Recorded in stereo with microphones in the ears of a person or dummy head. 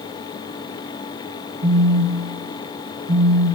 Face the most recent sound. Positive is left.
turn(degrees=-85)